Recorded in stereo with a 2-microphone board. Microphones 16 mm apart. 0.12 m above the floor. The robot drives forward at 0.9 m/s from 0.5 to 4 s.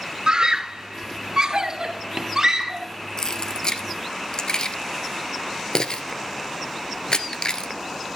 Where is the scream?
50° right (ahead or behind), 1.9 m; by 2.9 s 30° right (ahead or behind), 2.5 m.